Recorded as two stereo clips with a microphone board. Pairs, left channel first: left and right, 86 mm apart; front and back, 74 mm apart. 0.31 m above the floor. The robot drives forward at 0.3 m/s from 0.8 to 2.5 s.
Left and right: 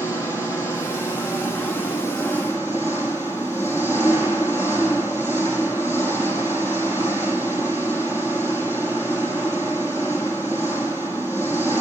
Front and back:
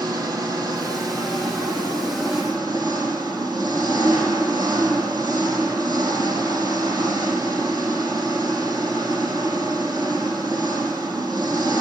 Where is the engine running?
145° left, 5 m; by 11.8 s 150° left, 5 m.